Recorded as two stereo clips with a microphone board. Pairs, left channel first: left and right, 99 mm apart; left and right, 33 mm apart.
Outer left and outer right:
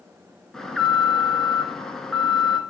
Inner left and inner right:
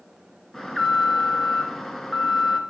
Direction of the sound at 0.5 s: 5° left (ahead or behind).